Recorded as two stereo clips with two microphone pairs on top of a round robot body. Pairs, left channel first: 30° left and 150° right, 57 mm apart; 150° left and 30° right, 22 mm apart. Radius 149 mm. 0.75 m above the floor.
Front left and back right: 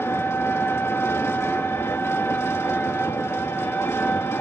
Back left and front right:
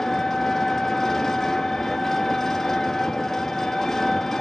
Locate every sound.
0.0 s an engine running: 70° left, 1.9 m